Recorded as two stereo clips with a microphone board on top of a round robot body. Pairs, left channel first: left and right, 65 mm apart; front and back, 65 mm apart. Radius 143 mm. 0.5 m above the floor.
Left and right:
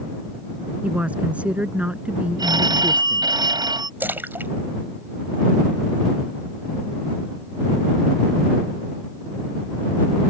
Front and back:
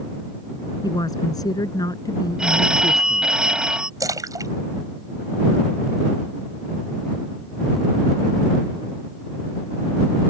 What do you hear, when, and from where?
0.8 s a woman speaking: 20° right
2.4 s a phone ringing: 105° right
4.0 s a splash: 150° right